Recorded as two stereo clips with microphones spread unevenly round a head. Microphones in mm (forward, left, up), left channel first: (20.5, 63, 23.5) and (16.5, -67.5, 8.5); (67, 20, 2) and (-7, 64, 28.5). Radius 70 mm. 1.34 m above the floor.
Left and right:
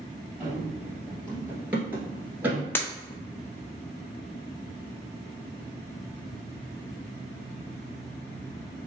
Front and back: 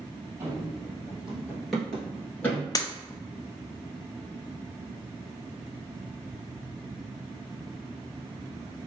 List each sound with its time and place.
0.4 s running footsteps: 175° right, 1.8 m; by 2.6 s 45° right, 1.3 m
2.8 s breaking glass: 20° left, 0.7 m